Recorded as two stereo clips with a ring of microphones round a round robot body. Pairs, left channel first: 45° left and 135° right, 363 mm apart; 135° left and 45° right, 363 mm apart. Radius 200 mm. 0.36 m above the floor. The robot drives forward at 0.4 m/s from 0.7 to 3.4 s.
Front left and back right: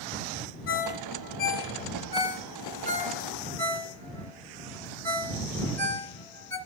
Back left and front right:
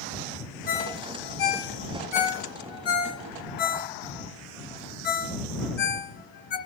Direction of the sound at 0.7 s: 105° left.